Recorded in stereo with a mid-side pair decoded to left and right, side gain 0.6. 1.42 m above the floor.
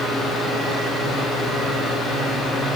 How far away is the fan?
About 3 m.